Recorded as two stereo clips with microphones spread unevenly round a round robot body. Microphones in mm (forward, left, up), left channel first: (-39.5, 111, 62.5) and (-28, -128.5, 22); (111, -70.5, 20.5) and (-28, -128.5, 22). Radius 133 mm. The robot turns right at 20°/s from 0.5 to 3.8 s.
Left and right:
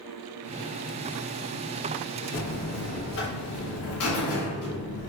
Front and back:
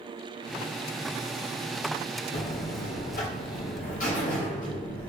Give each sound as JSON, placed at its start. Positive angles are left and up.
{"t": 2.3, "sound": "a buzzer", "azimuth_deg": 35, "distance_m": 0.8}